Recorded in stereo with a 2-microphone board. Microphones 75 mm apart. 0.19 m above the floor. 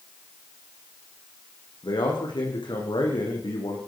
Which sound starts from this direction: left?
A man speaking, at 1.8 s.